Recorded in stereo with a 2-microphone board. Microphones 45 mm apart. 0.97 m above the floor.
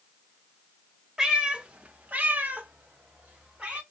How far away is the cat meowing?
About 0.8 m.